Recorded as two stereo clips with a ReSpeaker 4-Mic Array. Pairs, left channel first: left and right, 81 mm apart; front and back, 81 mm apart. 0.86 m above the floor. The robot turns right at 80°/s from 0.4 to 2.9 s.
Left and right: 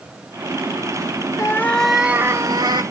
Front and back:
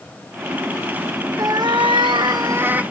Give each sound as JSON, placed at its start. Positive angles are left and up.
{"t": 1.4, "sound": "a cat meowing", "azimuth_deg": 140, "distance_m": 1.1}